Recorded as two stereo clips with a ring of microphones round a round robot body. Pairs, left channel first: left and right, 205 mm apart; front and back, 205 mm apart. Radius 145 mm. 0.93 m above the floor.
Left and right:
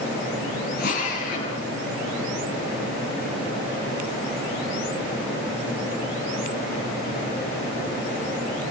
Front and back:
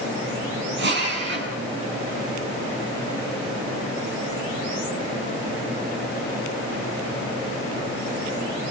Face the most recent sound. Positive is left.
turn(degrees=150)